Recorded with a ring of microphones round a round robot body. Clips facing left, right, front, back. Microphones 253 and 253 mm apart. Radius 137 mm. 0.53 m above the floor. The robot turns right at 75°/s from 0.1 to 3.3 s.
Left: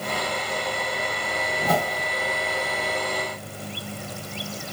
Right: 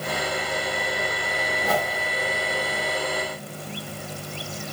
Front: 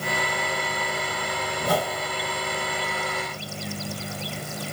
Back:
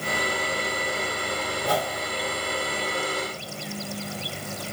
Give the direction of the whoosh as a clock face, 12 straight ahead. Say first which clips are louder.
Left 2 dB, front 3 dB; 10 o'clock.